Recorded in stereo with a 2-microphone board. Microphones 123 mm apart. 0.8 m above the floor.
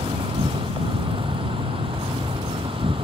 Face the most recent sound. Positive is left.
turn(degrees=-45)  # may be behind; listen again after turning